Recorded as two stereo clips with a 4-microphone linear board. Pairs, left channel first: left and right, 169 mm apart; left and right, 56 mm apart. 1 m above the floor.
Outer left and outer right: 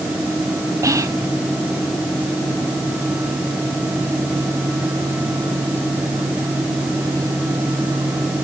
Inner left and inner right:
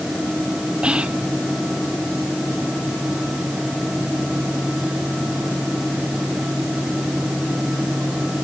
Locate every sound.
0.8 s whispering: 20° right (ahead or behind), 0.5 m